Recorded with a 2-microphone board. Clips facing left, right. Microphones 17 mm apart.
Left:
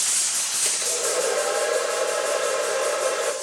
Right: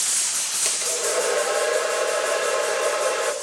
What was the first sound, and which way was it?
A hair dryer, 25° right (ahead or behind).